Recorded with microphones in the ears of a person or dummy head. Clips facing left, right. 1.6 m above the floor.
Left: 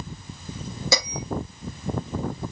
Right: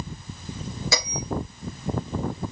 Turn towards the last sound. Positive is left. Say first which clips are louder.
# left 3 dB
turn(degrees=80)